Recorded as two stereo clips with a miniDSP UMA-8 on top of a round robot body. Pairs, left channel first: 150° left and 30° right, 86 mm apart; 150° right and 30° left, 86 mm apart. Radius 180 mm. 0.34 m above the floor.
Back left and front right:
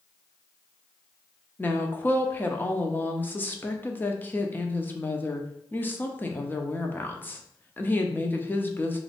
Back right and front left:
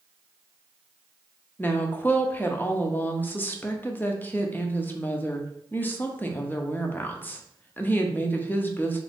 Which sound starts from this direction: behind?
A woman speaking, at 1.6 s.